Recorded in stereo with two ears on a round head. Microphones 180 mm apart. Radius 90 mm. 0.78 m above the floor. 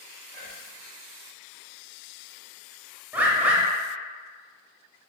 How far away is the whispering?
About 1.6 m.